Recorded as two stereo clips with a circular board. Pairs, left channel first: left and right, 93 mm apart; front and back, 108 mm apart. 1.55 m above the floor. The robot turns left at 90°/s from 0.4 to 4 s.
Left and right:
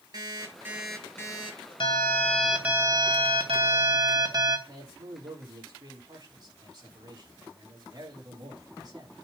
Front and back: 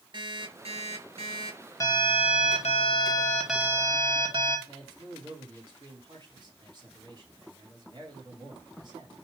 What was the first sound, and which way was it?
An alarm clock, 135° right.